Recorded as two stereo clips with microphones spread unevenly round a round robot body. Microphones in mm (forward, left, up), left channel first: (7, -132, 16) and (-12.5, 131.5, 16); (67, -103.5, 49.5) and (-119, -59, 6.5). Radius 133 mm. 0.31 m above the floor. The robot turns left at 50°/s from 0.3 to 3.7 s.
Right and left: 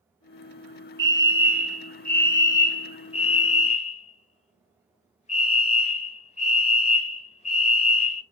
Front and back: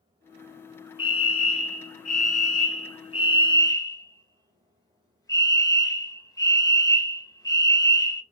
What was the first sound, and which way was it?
A fire alarm, 45° left.